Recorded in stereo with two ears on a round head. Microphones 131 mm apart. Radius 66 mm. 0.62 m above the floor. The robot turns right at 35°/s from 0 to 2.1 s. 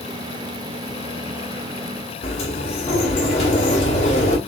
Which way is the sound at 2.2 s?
45° left (ahead or behind).